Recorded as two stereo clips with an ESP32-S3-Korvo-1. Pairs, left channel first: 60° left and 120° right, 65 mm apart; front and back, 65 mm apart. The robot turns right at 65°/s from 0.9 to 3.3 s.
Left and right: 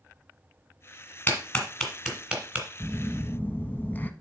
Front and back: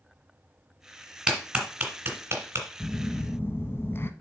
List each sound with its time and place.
1.3 s a clap: 105° left, 1.8 m; by 2.7 s 165° right, 1.8 m
2.8 s a phone buzzing: 15° right, 0.5 m; by 4.1 s 20° left, 0.5 m